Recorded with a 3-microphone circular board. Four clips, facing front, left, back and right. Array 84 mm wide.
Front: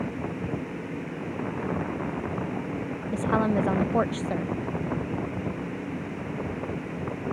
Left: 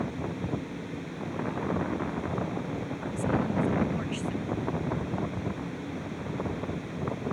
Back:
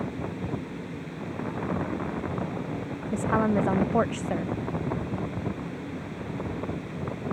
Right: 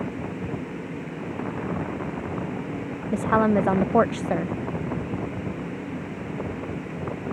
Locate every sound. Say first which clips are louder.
3.1 s a woman speaking: right 9 dB, even; 95° right